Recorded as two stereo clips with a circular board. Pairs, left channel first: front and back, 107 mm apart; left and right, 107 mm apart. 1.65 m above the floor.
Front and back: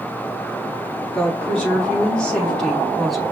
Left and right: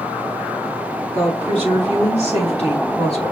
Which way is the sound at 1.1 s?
75° left.